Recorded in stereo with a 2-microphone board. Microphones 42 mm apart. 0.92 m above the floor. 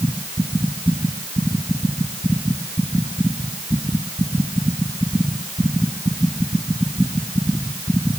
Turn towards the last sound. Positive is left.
No sound to turn to.